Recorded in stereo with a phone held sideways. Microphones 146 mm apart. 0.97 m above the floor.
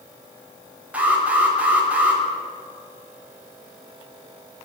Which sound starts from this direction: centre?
An alarm, at 0.9 s.